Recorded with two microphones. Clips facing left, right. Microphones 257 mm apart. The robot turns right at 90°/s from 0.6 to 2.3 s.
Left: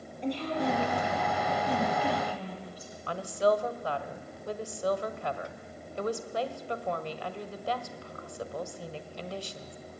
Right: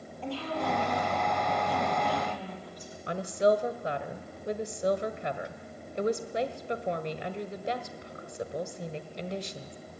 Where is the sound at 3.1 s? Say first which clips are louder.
Right 2 dB; 20° right (ahead or behind), 1.4 m.